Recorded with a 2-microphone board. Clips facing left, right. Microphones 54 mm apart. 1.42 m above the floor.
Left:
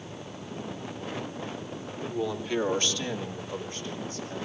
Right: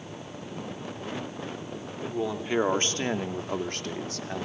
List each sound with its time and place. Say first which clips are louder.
2.0 s a man speaking: right 1 dB; 10° right (ahead or behind), 3 m; by 4.5 s 80° right, 3 m